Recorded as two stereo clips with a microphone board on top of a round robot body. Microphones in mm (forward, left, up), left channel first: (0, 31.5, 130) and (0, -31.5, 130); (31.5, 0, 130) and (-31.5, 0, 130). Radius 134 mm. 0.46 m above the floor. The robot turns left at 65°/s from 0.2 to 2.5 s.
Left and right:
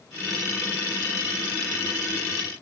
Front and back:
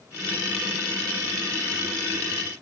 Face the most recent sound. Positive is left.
No sound to turn to.